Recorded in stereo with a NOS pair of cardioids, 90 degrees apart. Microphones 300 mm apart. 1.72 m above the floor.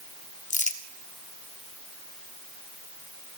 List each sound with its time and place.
0.5 s crumpling: 25° left, 1.3 m